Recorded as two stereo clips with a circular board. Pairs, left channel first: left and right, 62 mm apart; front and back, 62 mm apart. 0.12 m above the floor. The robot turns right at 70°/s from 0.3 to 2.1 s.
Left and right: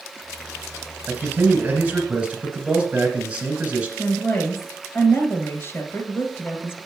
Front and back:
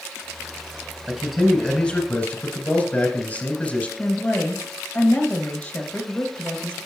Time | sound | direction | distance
1.1 | a man speaking | 110° right | 1.8 m
4.0 | a woman speaking | 60° left | 2 m